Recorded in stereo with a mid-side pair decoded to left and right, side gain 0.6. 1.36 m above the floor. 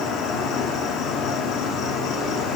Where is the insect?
60° left, 1.7 m.